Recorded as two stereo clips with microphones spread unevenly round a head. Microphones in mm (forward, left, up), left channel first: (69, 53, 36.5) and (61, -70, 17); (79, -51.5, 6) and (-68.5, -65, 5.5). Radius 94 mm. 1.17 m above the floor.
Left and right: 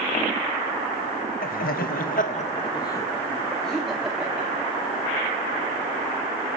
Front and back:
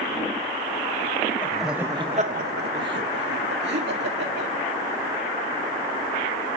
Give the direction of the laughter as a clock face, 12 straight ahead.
9 o'clock.